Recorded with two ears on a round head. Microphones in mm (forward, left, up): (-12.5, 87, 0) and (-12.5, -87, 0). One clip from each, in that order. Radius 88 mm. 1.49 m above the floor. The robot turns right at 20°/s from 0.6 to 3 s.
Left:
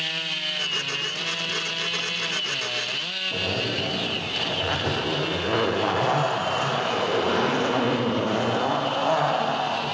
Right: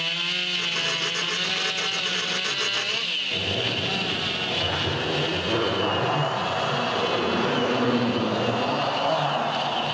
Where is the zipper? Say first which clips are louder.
Right 1 dB; 50° left (ahead or behind), 0.7 m.